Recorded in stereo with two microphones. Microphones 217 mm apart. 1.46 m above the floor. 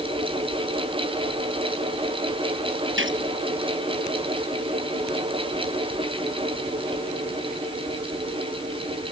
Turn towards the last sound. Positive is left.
turn(degrees=-65)  # may be behind; listen again after turning